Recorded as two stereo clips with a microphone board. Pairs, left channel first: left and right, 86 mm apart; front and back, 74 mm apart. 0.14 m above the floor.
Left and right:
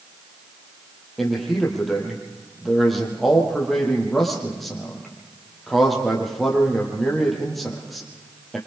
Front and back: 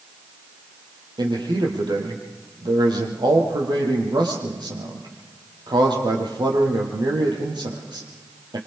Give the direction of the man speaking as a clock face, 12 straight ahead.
6 o'clock.